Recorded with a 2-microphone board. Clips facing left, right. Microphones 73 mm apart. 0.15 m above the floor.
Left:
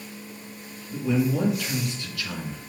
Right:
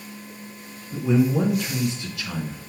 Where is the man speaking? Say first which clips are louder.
Right 4 dB; 20° right (ahead or behind), 1.6 m.